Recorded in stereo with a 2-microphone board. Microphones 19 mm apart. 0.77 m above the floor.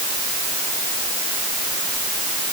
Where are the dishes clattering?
I don't hear dishes clattering.